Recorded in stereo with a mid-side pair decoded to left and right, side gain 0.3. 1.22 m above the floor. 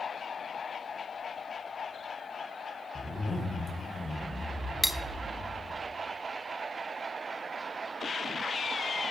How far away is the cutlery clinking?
About 0.8 m.